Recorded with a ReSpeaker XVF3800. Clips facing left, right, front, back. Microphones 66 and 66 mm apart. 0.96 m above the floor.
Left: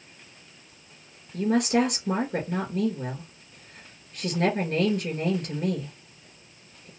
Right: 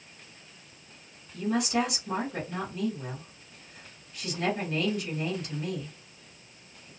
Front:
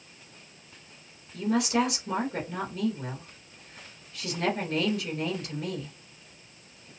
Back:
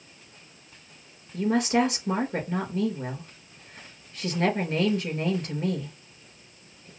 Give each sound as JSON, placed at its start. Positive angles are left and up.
{"t": 1.3, "sound": "a woman speaking", "azimuth_deg": 130, "distance_m": 3.0}